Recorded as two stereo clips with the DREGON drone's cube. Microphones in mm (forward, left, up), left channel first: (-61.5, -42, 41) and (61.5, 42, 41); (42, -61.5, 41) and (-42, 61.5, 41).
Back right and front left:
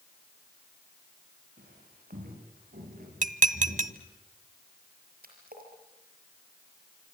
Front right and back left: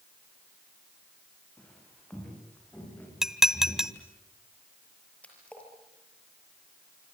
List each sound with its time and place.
1.6 s footsteps: 25° left, 9.5 m; by 4.0 s 20° left, 10 m
3.2 s dishes clattering: 40° left, 0.9 m
5.2 s a splash: 25° left, 6.5 m